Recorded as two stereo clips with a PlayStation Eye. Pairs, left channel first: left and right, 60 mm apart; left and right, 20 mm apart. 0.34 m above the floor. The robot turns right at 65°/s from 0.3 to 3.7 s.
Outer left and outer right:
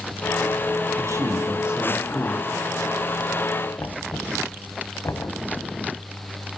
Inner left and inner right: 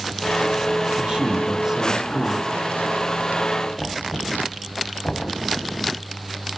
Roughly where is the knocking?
Left.